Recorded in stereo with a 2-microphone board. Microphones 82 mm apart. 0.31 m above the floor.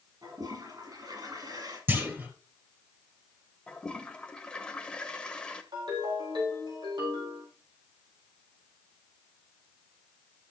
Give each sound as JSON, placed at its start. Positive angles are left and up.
{"t": 0.2, "sound": "a toilet flushing", "side_deg": -55, "distance_m": 7.5}
{"t": 1.9, "sound": "a clunk", "side_deg": -30, "distance_m": 3.0}
{"t": 3.7, "sound": "a toilet flushing", "side_deg": 15, "distance_m": 1.3}
{"t": 5.7, "sound": "a ringtone", "side_deg": -75, "distance_m": 6.0}